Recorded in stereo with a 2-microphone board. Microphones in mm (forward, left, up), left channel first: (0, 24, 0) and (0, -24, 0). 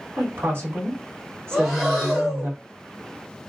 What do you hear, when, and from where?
0.2 s a woman speaking: 55° right (ahead or behind), 1.9 m
1.5 s breathing: 10° right (ahead or behind), 1.3 m